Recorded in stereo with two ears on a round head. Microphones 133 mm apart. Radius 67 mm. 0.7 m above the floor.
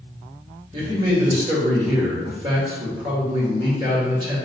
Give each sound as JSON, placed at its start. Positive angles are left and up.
{"t": 0.7, "sound": "a man speaking", "side_deg": -30, "distance_m": 1.8}